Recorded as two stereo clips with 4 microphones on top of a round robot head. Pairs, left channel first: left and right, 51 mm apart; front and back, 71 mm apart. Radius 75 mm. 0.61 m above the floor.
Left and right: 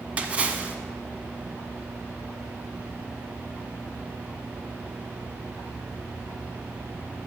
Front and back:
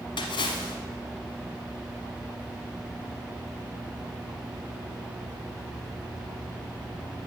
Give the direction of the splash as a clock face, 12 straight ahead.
1 o'clock.